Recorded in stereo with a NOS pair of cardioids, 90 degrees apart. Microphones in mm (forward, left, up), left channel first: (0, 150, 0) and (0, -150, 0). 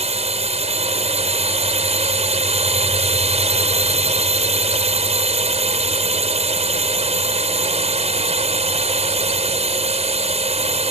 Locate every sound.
0.0 s a drone: 20° right